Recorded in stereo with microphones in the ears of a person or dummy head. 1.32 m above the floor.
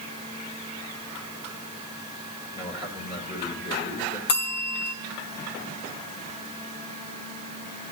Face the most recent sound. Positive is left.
turn(degrees=55)  # may be behind; listen again after turning